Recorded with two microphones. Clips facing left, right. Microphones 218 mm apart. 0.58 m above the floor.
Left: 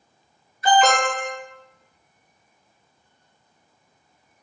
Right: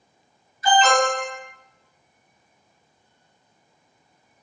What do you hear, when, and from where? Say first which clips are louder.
0.6 s an alarm: even; 55° left (ahead or behind), 1.2 m